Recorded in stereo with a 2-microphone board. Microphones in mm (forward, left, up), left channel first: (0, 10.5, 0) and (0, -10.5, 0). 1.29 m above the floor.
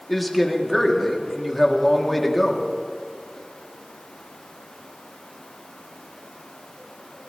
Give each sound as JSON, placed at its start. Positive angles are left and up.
{"t": 0.1, "sound": "a man speaking", "side_deg": 0, "distance_m": 1.5}